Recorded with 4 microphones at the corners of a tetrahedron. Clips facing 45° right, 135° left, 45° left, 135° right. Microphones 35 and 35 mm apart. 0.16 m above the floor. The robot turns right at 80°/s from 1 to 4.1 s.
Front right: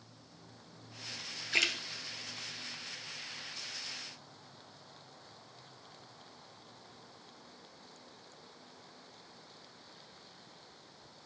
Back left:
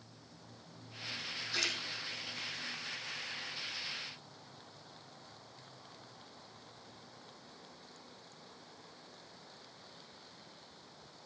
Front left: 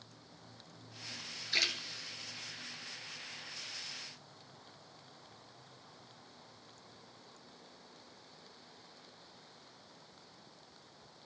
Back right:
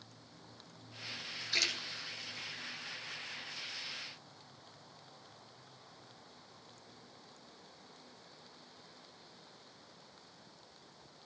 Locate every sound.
1.5 s a splash: 40° right, 2 m; by 1.8 s 20° right, 2 m